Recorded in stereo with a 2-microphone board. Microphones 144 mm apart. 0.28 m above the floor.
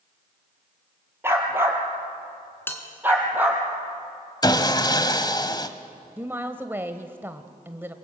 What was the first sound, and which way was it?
A dog barking, 15° right (ahead or behind).